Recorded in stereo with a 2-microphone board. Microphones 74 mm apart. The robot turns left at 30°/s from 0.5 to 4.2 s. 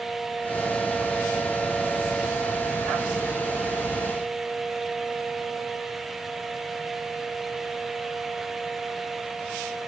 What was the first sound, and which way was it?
Only background noise.